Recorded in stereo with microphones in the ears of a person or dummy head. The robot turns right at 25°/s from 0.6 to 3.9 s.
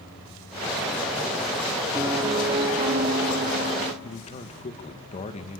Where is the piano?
165° right, 3.5 m; by 3.9 s 115° right, 3.5 m.